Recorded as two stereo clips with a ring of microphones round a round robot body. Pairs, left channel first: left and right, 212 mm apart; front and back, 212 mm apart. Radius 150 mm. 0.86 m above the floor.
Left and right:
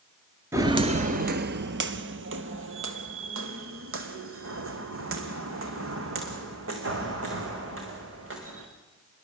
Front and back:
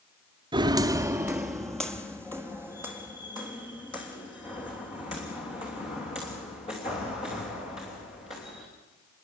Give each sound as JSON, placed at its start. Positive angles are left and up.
{"t": 0.5, "sound": "footsteps", "azimuth_deg": -150, "distance_m": 0.8}